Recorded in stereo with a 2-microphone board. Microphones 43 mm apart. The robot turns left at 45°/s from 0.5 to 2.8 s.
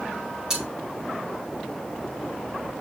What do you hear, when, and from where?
0.5 s cutlery clinking: 20° right (ahead or behind), 5.5 m; by 0.7 s 10° right (ahead or behind), 5.5 m